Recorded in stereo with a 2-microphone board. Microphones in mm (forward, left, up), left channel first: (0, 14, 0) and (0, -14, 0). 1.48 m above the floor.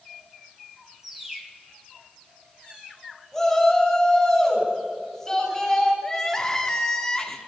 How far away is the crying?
About 2 m.